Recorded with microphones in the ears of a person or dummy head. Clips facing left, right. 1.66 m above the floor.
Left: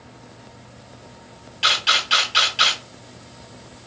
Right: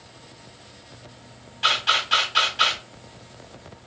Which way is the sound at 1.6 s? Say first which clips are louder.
Left 1 dB; 40° left (ahead or behind).